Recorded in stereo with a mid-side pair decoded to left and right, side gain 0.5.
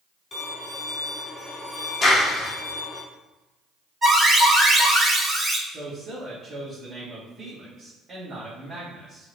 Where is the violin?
35° left, 1.4 m.